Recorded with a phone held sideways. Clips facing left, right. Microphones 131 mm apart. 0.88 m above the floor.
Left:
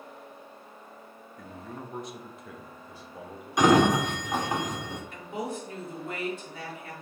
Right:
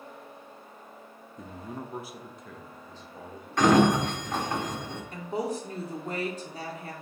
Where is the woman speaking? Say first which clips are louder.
Right 5 dB; 35° right (ahead or behind), 1.7 m.